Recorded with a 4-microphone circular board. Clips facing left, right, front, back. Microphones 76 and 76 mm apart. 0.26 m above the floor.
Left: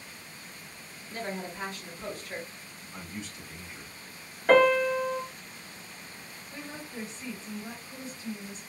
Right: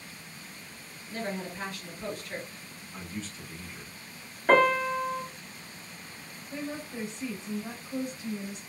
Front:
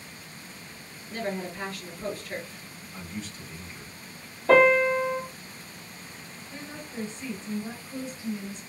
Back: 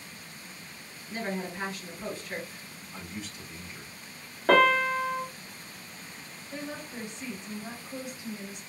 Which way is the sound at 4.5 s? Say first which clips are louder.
Left 2 dB, front 3 dB; 175° right.